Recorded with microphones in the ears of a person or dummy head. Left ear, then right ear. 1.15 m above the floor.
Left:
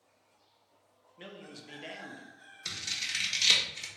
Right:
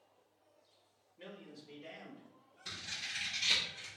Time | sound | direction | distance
1.2 | a man speaking | 25° left (ahead or behind) | 0.6 m
2.6 | scissors | 75° left (ahead or behind) | 1.1 m